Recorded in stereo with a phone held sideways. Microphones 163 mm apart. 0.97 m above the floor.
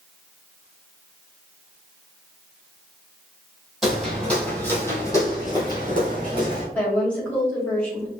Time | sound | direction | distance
3.8 | footsteps | centre (ahead or behind) | 1.6 m
6.8 | a woman speaking | 10° left (ahead or behind) | 2 m